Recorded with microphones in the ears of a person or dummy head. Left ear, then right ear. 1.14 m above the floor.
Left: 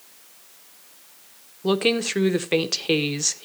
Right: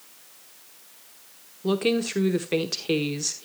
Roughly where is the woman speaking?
Left.